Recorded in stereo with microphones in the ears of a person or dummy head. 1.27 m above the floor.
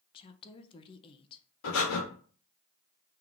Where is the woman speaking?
25° left (ahead or behind), 0.5 m.